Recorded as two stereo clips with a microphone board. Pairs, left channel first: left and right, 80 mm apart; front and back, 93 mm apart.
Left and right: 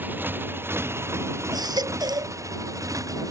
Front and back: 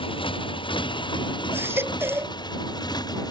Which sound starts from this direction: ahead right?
A motorcycle, at 0.0 s.